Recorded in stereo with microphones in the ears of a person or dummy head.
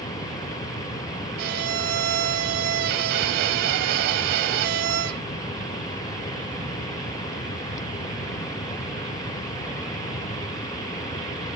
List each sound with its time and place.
1.4 s a violin: 60° right (ahead or behind), 0.7 m